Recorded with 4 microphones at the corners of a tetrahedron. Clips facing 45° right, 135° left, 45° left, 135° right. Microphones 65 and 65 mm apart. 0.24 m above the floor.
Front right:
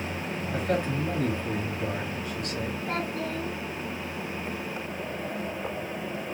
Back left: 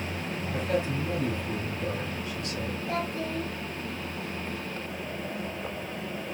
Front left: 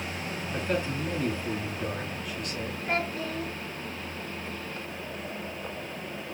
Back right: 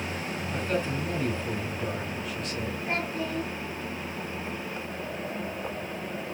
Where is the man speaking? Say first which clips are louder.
Front right 1 dB, even; 40° right, 3.5 m.